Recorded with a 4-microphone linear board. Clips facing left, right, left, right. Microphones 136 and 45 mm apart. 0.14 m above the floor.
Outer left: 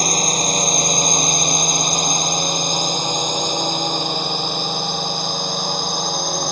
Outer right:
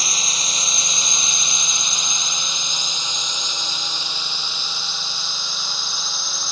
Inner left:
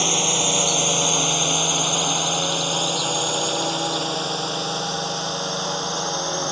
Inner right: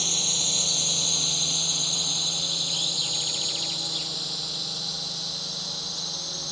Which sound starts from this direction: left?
A drone, at 0.0 s.